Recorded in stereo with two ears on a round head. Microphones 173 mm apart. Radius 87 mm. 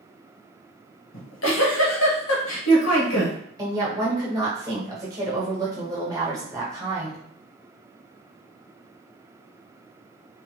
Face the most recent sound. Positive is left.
turn(degrees=-20)  # may be behind; listen again after turning